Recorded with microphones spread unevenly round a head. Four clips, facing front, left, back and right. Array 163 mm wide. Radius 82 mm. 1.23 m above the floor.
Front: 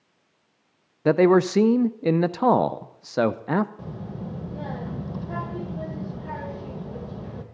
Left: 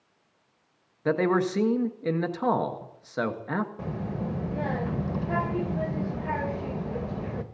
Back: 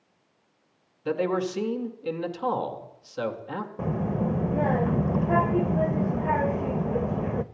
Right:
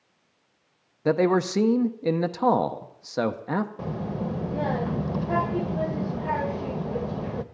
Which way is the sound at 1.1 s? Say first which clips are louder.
Right 2 dB, front 9 dB; 15° right.